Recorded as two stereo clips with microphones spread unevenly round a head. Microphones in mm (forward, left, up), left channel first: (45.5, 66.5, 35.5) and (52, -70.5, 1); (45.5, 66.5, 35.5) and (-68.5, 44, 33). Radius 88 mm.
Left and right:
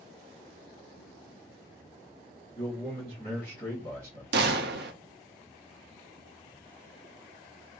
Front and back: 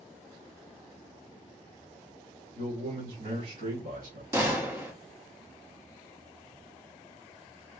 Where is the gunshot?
95° right, 0.7 m.